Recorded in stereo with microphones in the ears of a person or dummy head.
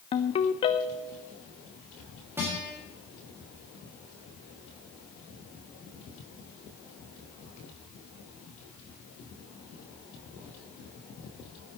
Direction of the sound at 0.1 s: 15° left (ahead or behind).